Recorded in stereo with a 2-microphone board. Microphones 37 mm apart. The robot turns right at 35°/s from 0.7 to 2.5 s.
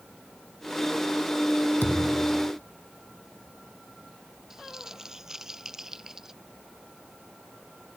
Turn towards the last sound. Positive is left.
turn(degrees=-15)  # may be behind; listen again after turning